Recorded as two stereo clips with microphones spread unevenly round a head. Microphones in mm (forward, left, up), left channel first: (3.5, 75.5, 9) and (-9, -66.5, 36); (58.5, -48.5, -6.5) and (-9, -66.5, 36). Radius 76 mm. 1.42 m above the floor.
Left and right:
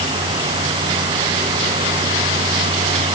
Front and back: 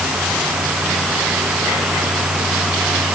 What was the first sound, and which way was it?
Only background noise.